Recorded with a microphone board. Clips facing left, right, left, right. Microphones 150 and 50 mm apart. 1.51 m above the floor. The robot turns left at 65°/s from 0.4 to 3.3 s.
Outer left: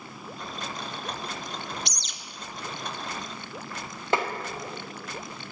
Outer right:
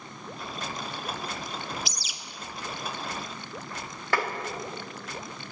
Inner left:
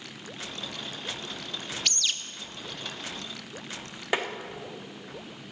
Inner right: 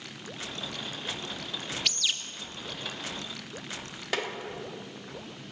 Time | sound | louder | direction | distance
1.9 | a bird | outer right 1 dB, even | centre (ahead or behind) | 0.6 m
4.1 | tapping | outer left 2 dB, inner left 3 dB | 20° left (ahead or behind) | 1.0 m